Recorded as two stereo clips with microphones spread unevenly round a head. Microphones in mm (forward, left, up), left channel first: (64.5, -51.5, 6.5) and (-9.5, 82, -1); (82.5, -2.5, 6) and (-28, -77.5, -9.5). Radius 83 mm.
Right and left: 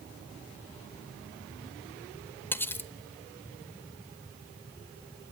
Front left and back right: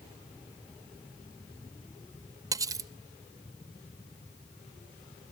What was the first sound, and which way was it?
Cutlery clinking, 110° right.